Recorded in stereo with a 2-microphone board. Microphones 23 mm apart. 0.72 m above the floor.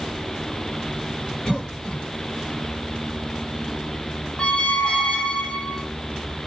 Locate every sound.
1.4 s a cough: 35° left (ahead or behind), 2.5 m
4.4 s a squeak: 50° left (ahead or behind), 0.8 m